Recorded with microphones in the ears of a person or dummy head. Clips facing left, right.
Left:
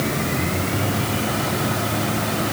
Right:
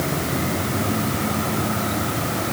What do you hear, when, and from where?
Only background noise.